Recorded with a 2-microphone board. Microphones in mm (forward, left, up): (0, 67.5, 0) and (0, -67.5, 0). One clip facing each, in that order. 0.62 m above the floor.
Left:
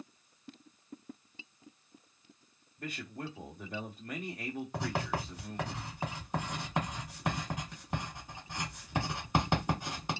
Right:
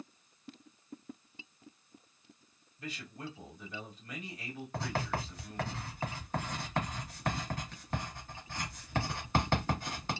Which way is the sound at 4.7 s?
15° left (ahead or behind).